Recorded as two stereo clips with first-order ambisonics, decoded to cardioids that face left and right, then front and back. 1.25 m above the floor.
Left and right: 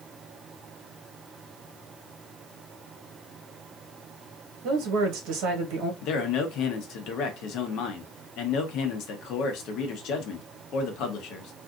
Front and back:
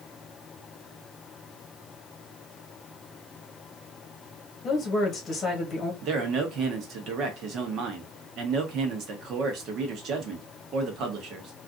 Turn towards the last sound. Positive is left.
turn(degrees=130)